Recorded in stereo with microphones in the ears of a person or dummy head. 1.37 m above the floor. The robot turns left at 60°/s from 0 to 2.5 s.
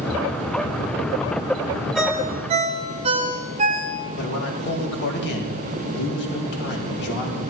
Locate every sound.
1.9 s a ringtone: straight ahead, 0.9 m; by 4.0 s 35° right, 0.9 m
4.2 s a man speaking: 55° left (ahead or behind), 2 m